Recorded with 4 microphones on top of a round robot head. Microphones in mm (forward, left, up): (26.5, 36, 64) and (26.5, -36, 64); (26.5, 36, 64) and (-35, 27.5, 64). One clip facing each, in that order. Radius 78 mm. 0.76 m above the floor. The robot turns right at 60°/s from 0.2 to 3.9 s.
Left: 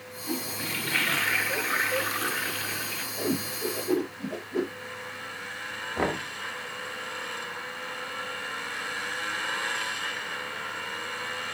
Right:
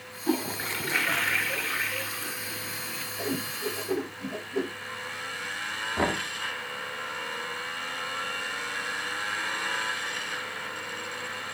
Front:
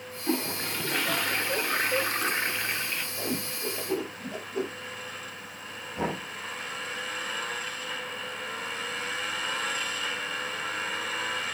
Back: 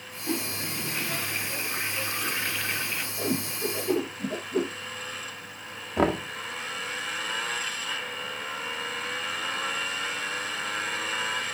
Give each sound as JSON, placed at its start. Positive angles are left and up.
{"t": 0.3, "sound": "a toilet flushing", "azimuth_deg": -60, "distance_m": 1.0}
{"t": 3.2, "sound": "a whoosh", "azimuth_deg": 95, "distance_m": 4.5}
{"t": 6.0, "sound": "knocking", "azimuth_deg": 175, "distance_m": 2.0}